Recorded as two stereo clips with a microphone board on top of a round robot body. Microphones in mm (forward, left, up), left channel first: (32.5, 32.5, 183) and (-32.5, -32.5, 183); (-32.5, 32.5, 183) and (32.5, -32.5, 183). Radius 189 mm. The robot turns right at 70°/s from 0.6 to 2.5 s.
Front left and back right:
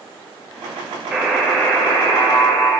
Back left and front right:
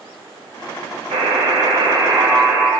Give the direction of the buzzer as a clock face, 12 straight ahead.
2 o'clock.